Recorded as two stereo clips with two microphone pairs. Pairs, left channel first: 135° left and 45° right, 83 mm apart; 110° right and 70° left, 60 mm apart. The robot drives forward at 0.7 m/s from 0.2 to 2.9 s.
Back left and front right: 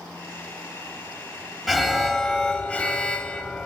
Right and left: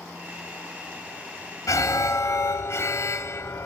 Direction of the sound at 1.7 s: 135° right.